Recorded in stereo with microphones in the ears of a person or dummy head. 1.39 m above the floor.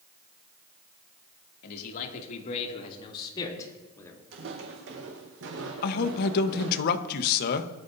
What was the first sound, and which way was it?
A man speaking, 55° left (ahead or behind).